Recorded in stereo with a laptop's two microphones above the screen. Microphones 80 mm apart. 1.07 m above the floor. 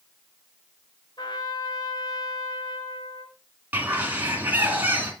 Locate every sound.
1.2 s a trumpet: 60° left (ahead or behind), 1.4 m
3.7 s a bird: 25° right (ahead or behind), 2.0 m